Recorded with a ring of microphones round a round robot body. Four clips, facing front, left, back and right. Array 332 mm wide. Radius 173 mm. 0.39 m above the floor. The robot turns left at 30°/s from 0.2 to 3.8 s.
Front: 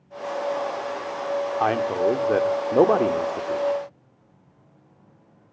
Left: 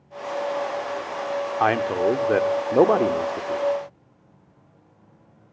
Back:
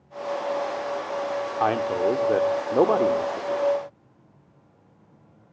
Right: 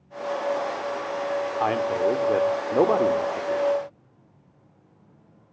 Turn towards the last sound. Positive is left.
turn(degrees=20)